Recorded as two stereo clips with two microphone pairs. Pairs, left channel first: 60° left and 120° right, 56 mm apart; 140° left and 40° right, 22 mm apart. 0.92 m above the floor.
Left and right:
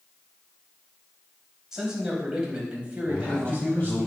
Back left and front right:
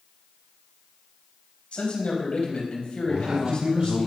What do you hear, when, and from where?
1.7 s a man speaking: 160° left, 4.5 m; by 4.1 s 175° left, 5 m
3.1 s a man speaking: 5° left, 4.5 m